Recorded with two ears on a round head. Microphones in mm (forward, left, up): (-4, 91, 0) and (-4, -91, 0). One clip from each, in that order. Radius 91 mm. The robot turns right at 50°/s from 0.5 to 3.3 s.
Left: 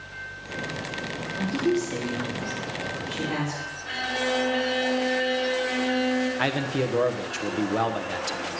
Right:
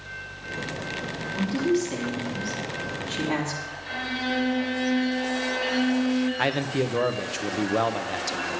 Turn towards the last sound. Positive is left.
turn(degrees=-5)  # may be behind; listen again after turning